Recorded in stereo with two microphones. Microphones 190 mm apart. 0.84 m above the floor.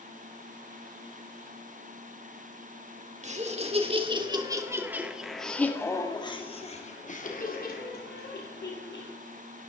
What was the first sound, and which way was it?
Laughter, 40° right (ahead or behind).